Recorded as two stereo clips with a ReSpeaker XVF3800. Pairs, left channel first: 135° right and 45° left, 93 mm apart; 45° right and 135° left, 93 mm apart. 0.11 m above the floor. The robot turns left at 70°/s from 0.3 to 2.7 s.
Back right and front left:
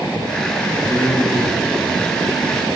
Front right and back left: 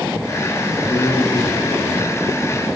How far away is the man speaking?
About 8.5 m.